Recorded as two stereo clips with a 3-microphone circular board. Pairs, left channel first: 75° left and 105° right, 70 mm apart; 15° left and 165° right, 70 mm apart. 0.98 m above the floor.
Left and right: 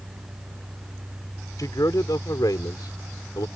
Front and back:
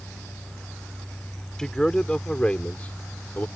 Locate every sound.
1.6 s a man speaking: 95° left; by 3.5 s 75° left